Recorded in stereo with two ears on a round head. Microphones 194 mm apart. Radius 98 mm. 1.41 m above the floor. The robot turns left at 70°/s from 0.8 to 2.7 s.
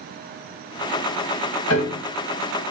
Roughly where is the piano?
Left.